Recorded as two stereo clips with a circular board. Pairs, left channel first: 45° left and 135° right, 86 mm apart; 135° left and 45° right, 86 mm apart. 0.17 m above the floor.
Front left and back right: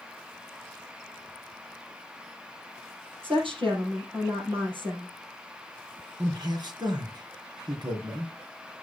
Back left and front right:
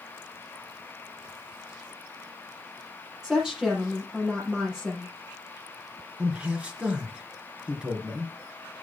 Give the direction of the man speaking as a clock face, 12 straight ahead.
4 o'clock.